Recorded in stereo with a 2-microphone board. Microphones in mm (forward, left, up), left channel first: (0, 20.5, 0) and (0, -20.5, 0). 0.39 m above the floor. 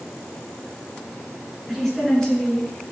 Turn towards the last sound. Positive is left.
turn(degrees=25)  # may be behind; listen again after turning